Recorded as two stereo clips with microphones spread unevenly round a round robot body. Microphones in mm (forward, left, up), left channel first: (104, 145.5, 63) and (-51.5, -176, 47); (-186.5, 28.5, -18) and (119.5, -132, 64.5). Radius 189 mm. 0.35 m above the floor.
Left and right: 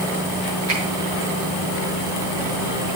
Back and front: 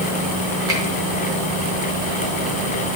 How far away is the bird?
No bird in this recording.